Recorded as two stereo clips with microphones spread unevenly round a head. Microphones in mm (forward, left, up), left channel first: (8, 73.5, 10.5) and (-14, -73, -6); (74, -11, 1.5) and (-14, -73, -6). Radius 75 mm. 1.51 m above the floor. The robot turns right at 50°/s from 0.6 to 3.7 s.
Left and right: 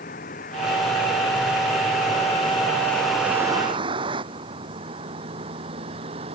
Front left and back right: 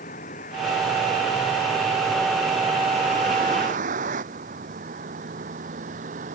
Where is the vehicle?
45° left; by 6.3 s 155° right.